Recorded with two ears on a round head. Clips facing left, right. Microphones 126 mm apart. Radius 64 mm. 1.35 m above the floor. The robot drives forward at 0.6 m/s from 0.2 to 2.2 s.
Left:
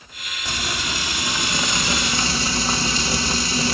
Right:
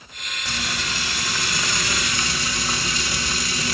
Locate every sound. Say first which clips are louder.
0.5 s frying: left 2 dB; 15° left (ahead or behind), 2 m; by 3.7 s 25° left (ahead or behind), 1.1 m